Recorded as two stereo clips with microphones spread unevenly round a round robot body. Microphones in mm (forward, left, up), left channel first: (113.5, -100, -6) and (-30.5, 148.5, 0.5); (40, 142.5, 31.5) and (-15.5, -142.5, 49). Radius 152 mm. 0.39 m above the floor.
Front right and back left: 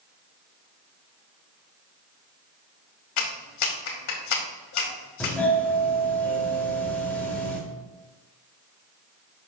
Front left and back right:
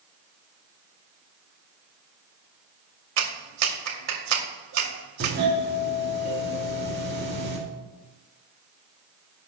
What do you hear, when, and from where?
3.2 s a clap: 80° right, 2 m
5.2 s a doorbell: 140° right, 1.7 m